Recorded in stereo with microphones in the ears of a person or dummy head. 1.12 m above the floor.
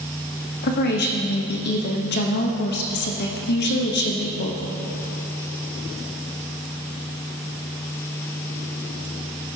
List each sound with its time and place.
0.6 s a woman speaking: 50° left (ahead or behind), 0.9 m